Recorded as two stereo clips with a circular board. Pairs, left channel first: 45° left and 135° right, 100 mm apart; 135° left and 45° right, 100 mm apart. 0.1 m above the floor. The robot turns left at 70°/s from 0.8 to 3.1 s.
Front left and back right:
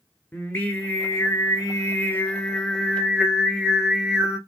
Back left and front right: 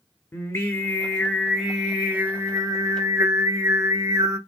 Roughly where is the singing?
Left.